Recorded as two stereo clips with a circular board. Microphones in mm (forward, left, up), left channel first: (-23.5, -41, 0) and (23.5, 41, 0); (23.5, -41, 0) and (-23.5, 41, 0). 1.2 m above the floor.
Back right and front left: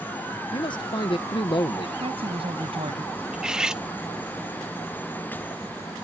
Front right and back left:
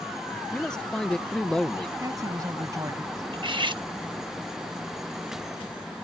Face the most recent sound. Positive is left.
turn(degrees=140)